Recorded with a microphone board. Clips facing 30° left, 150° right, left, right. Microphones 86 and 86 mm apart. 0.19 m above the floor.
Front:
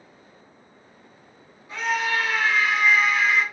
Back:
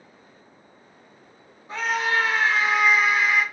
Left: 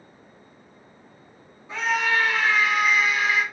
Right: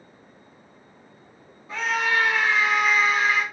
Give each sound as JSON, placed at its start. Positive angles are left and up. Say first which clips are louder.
{"t": 1.7, "sound": "a scream", "louder": "back 1 dB, left 1 dB", "azimuth_deg": -175, "distance_m": 1.2}